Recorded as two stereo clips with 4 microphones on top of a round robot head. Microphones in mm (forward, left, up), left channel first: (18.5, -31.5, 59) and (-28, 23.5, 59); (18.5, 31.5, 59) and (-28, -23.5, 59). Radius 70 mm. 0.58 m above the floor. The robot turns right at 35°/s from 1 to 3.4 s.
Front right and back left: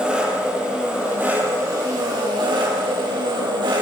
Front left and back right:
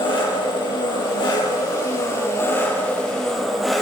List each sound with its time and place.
0.0 s an engine running: 55° left, 7 m; by 3.8 s 140° left, 7 m